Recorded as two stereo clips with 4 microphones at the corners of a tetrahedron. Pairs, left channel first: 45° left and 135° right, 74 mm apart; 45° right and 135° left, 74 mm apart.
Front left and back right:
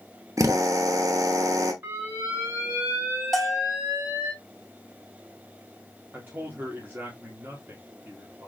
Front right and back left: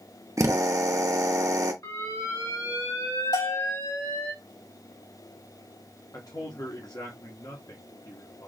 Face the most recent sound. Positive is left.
turn(degrees=-75)